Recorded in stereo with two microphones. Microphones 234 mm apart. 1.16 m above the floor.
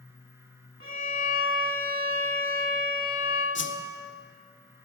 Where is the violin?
60° right (ahead or behind), 1.5 m.